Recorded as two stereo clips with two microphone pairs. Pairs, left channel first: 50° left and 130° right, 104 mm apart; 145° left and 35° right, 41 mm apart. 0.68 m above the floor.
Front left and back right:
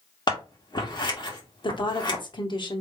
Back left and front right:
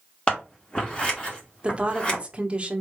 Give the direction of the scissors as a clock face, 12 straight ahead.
9 o'clock.